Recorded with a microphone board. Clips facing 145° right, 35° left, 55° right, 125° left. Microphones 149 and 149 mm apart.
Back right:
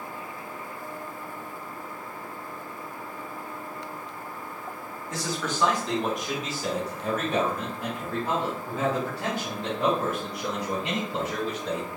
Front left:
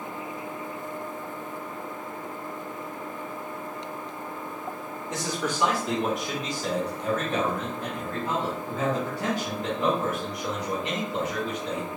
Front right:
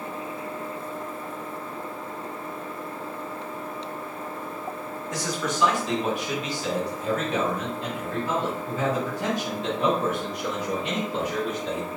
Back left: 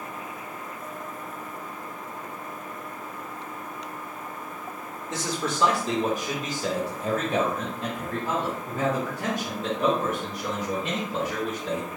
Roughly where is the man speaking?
Left.